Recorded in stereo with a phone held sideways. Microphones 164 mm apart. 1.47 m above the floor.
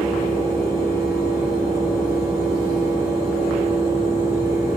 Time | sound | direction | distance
0.0 | a fan | 75° left (ahead or behind) | 3.5 m